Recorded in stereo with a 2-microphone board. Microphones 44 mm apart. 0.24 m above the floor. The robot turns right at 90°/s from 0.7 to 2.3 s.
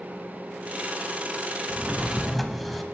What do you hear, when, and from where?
1.7 s a drawer: 50° right, 0.7 m; by 2.8 s 5° left, 0.7 m